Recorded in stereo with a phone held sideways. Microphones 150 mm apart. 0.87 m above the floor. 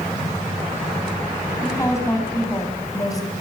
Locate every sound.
1.6 s a woman speaking: 20° left (ahead or behind), 8 m; by 3.3 s 25° left (ahead or behind), 6 m